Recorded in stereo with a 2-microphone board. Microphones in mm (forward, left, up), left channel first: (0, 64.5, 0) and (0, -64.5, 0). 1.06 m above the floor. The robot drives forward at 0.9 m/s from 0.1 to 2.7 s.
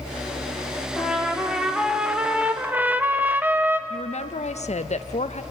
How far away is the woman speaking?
About 0.7 m.